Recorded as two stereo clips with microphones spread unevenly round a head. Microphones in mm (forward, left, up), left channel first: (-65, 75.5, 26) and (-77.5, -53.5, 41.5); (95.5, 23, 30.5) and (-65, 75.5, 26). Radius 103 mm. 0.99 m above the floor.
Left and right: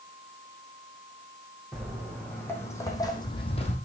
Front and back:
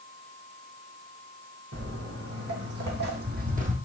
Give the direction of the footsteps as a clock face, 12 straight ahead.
6 o'clock.